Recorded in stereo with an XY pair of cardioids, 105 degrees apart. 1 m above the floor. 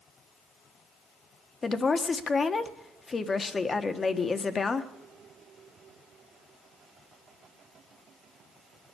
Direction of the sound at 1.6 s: 35° left.